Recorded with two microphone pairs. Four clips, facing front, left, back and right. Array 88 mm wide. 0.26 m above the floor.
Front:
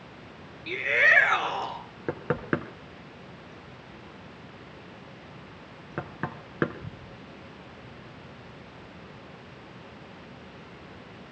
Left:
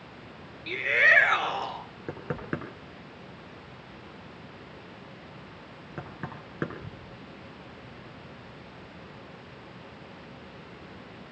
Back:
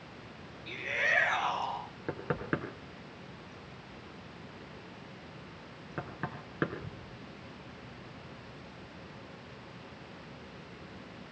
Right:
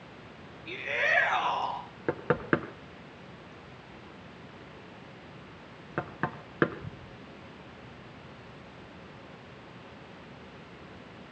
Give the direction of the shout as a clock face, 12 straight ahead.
11 o'clock.